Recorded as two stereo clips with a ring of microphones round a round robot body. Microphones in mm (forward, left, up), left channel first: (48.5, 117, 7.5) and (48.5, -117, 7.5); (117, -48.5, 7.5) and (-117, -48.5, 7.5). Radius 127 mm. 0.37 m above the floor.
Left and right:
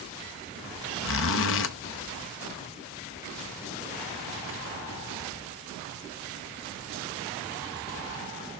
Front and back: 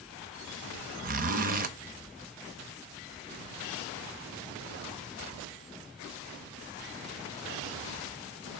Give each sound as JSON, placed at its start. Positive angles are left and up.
{"t": 1.0, "sound": "a zipper", "azimuth_deg": 125, "distance_m": 0.6}